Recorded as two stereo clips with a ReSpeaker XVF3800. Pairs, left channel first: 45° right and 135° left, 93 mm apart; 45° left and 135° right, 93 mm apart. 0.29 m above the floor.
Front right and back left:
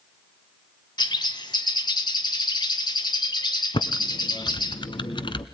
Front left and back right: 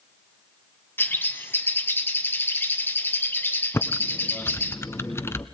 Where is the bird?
20° right, 1.6 m.